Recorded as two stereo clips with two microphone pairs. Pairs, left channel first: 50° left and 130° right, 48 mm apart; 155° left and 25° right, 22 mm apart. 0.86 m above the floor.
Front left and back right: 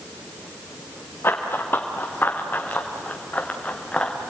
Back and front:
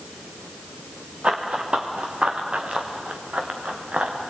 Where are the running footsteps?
10° left, 3 m; by 4.1 s 20° right, 3.5 m.